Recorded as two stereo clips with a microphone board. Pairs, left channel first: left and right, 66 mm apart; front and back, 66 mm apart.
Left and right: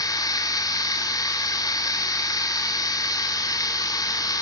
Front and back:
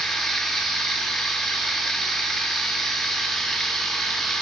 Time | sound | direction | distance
0.0 | running water | 85° left | 3 m